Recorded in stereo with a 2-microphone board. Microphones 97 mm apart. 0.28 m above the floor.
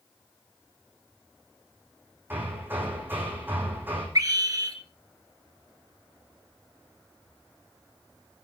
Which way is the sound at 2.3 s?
20° right (ahead or behind).